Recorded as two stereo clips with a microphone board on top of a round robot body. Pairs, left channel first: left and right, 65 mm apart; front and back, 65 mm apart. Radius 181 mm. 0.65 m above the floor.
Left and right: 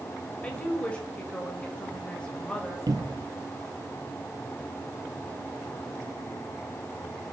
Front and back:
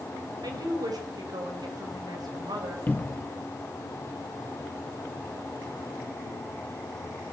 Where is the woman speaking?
165° left, 4.5 m.